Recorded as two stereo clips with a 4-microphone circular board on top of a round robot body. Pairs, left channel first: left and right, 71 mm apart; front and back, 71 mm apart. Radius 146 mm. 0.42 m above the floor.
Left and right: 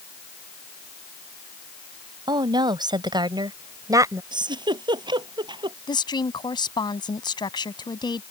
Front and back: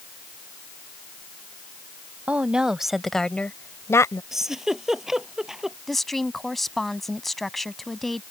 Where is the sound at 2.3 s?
110° right; by 4.2 s 45° right.